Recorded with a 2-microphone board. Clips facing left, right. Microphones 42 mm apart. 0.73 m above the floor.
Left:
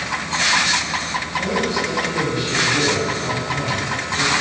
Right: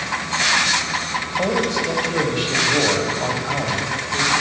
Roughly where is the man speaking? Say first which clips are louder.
Right 1 dB; right.